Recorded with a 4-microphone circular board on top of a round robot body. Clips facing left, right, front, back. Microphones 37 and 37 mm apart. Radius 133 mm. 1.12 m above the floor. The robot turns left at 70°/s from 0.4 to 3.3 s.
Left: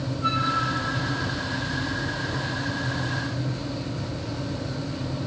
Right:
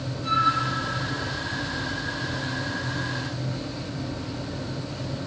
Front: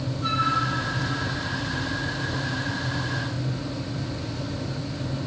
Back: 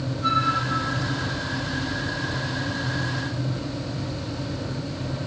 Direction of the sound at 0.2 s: 90° left.